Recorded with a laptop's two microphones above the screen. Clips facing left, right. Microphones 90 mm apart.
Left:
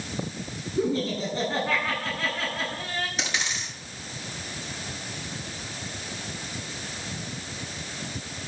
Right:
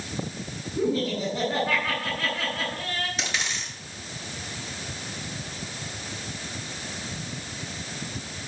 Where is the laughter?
5° right (ahead or behind), 7.5 m.